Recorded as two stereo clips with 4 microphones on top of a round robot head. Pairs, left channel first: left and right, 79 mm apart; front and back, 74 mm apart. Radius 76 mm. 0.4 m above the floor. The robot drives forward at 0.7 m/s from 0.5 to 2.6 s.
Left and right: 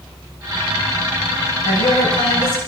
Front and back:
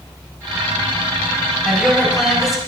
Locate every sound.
1.6 s a woman speaking: 95° left, 6.5 m; by 2.6 s 100° left, 6.5 m